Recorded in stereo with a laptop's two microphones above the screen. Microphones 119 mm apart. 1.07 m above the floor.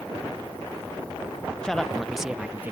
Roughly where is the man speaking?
Centre.